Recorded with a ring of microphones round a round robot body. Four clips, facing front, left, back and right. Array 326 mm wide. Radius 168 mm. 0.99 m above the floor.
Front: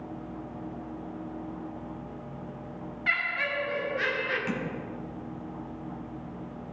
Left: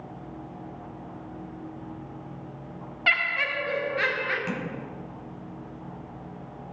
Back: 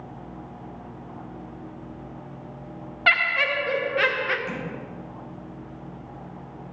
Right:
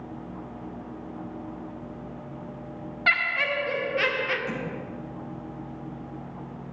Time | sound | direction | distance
3.1 | laughter | 170° left | 1.0 m
4.5 | tapping | 60° left | 3 m